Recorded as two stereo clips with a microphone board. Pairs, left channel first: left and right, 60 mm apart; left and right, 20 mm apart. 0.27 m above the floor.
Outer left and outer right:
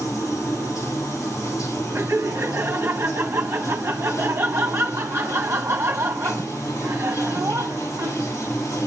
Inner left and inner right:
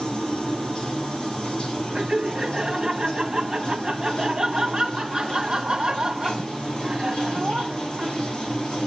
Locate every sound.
0.0 s running water: 60° left (ahead or behind), 7.5 m
1.9 s laughter: 50° right (ahead or behind), 2 m